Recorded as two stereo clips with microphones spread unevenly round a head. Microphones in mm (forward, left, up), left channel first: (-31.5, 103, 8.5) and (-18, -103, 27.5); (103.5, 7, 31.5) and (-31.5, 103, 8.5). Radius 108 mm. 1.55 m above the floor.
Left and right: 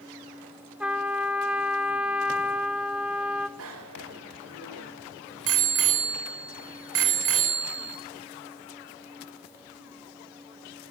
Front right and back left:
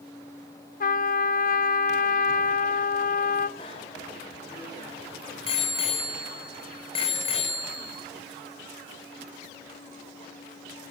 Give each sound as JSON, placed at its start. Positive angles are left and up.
{"t": 0.8, "sound": "a trumpet", "azimuth_deg": 0, "distance_m": 1.1}
{"t": 3.6, "sound": "a bicycle bell", "azimuth_deg": -100, "distance_m": 4.5}